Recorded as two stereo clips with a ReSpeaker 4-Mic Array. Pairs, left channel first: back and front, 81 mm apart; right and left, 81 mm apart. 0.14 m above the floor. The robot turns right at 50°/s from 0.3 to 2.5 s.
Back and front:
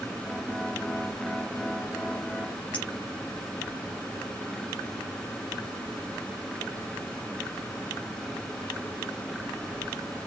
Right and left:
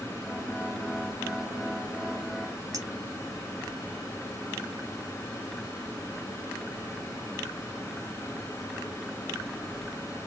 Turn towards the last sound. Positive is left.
turn(degrees=115)